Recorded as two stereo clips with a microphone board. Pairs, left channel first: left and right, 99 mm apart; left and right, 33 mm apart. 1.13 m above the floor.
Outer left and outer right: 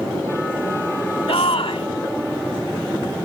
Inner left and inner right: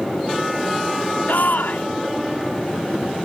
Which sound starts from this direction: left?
A shout, at 1.3 s.